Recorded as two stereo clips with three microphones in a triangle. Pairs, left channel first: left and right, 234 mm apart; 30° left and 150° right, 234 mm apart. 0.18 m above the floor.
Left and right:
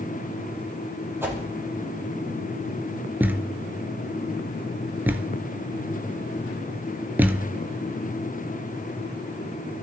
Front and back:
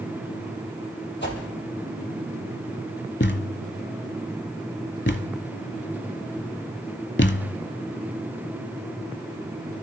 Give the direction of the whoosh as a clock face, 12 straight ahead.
12 o'clock.